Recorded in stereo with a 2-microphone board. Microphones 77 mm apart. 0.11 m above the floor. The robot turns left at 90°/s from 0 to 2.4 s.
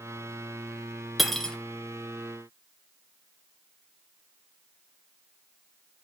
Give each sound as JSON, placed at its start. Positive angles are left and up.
{"t": 1.2, "sound": "cutlery clinking", "side_deg": 0, "distance_m": 0.7}